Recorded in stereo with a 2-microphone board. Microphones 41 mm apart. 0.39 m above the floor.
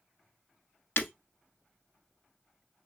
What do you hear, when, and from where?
1.0 s breaking glass: 65° left (ahead or behind), 0.5 m